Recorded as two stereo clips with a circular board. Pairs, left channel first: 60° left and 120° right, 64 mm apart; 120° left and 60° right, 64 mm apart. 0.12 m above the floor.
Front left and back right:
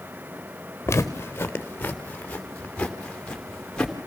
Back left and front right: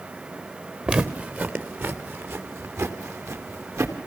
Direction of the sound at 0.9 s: 15° left.